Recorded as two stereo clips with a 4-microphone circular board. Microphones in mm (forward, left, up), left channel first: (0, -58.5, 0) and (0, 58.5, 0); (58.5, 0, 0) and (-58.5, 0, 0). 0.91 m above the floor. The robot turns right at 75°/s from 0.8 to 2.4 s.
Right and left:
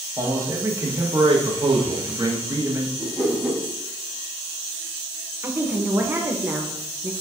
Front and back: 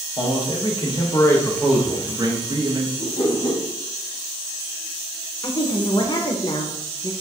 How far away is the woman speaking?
About 0.6 m.